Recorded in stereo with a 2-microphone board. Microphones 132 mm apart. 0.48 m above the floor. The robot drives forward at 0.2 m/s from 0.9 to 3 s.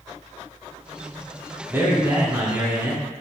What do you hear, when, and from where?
1.7 s a man speaking: 20° right (ahead or behind), 1.2 m